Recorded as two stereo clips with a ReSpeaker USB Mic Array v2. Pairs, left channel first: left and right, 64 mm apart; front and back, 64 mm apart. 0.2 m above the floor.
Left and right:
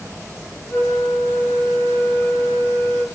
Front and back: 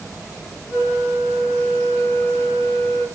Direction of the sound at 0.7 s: 135° left.